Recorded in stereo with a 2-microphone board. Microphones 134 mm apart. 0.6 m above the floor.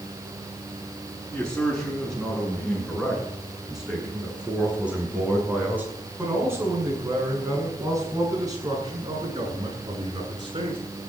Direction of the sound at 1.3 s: 5° left (ahead or behind).